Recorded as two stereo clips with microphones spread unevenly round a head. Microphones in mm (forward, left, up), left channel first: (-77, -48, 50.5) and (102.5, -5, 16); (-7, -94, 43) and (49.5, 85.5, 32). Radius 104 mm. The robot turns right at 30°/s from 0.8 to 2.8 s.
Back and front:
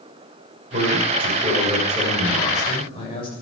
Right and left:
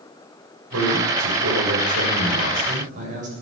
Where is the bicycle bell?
No bicycle bell in this recording.